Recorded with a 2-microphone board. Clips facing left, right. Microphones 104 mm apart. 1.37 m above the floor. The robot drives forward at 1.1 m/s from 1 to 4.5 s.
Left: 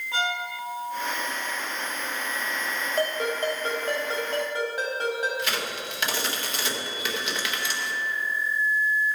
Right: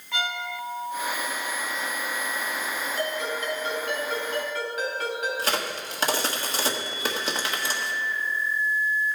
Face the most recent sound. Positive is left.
turn(degrees=-40)  # may be behind; listen again after turning